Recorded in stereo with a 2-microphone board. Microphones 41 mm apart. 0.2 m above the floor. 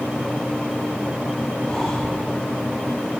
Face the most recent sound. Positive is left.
turn(degrees=10)  # may be behind; listen again after turning